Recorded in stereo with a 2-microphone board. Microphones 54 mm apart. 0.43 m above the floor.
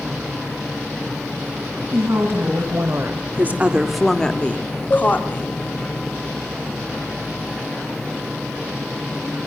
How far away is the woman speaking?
About 2.5 m.